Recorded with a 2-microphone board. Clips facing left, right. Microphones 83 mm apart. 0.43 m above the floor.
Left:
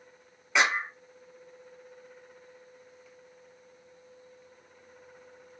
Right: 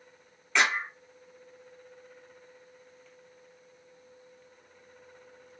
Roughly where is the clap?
Centre.